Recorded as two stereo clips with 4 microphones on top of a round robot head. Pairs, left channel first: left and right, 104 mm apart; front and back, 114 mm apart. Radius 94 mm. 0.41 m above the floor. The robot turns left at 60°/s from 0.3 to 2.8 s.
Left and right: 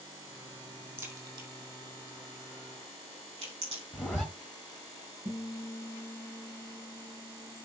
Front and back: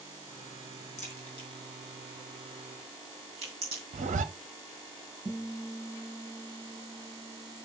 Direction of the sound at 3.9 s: Straight behind.